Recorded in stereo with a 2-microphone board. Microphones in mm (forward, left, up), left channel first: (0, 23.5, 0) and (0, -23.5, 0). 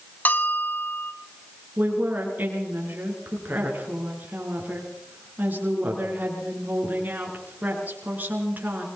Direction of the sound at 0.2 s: 40° left (ahead or behind).